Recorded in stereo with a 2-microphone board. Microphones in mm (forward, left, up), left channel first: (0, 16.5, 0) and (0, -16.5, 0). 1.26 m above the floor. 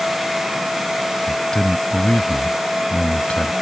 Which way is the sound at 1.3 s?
25° left (ahead or behind).